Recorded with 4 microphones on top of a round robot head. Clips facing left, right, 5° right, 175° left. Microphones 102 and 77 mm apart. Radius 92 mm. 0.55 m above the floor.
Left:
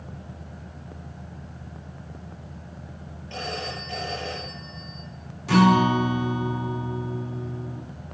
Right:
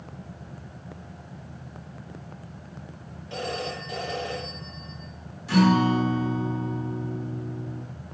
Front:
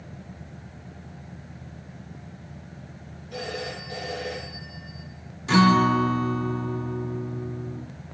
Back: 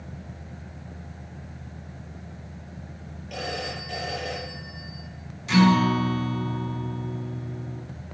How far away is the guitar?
About 3 m.